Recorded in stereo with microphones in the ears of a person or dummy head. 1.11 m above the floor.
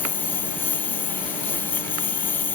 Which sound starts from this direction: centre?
A lawn mower, at 0.0 s.